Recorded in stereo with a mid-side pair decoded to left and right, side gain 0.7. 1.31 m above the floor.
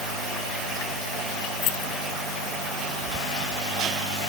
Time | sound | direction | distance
1.6 | keys jangling | 65° left | ?